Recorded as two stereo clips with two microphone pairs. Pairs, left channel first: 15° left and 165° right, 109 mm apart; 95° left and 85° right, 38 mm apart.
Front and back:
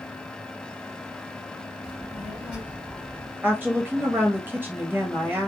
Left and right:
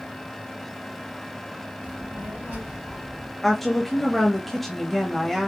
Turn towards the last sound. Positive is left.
turn(degrees=180)